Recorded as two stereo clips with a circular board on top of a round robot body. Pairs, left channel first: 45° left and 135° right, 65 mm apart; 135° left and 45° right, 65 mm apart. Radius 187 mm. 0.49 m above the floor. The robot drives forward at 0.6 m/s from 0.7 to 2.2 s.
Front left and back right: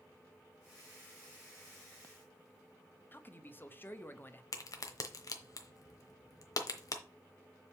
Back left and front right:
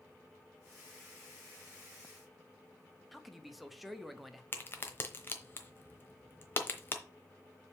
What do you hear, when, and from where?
3.1 s a man speaking: 45° left, 1.3 m
4.5 s a crack: 75° left, 1.0 m